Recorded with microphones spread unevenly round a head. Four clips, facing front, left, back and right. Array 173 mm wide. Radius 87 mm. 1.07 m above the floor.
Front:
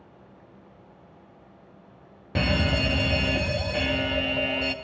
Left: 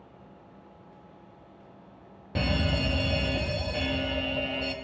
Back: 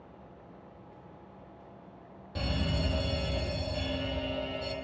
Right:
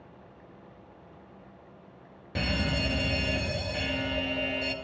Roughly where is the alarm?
Ahead.